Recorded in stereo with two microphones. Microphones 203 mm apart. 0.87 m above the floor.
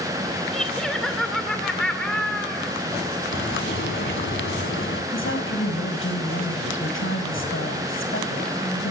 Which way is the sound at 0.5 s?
5° left (ahead or behind).